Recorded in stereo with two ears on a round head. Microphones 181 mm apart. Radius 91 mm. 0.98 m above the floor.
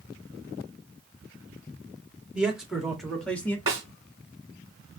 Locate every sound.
2.4 s a man speaking: 5° right (ahead or behind), 2.0 m; by 3.6 s 10° left (ahead or behind), 1.2 m
3.7 s a snare drum: 20° right (ahead or behind), 3 m